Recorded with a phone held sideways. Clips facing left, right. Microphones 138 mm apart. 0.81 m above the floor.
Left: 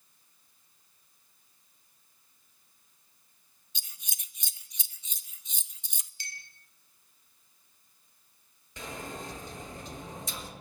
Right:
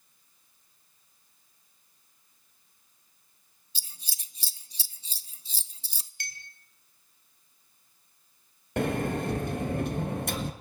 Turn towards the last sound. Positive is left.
turn(degrees=-65)  # may be behind; listen again after turning